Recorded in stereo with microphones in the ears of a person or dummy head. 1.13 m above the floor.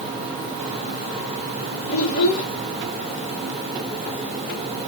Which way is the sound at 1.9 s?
50° left (ahead or behind).